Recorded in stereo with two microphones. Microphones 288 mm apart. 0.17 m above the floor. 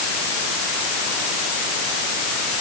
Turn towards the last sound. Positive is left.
No sound to turn to.